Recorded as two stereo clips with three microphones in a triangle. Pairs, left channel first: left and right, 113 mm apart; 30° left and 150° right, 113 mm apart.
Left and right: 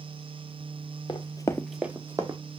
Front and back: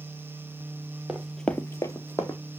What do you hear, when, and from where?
1.1 s running footsteps: 125° left, 0.8 m; by 2.4 s 35° right, 1.2 m